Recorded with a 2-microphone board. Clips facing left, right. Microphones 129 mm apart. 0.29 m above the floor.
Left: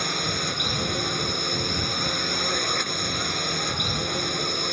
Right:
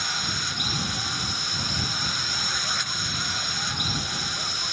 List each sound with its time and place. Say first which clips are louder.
0.0 s a drone: left 5 dB; 50° left (ahead or behind)